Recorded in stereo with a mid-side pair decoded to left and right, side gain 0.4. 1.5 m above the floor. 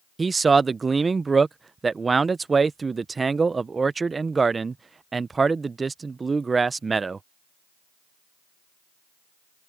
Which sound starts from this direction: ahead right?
A man speaking, at 0.2 s.